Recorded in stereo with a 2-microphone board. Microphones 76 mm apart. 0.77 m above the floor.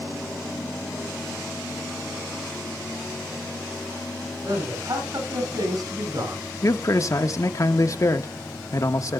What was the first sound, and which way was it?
A man speaking, 70° right (ahead or behind).